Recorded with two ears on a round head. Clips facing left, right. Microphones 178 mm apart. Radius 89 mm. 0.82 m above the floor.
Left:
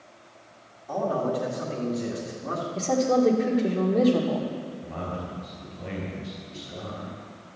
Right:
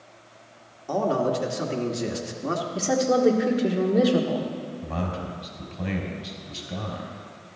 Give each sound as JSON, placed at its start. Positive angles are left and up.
{"t": 0.9, "sound": "a man speaking", "side_deg": -55, "distance_m": 1.8}
{"t": 2.8, "sound": "a woman speaking", "side_deg": -15, "distance_m": 1.6}
{"t": 4.8, "sound": "a man speaking", "side_deg": -80, "distance_m": 4.0}